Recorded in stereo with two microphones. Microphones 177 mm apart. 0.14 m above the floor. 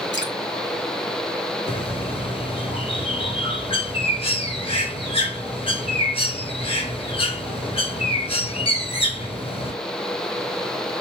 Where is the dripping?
80° left, 3 m.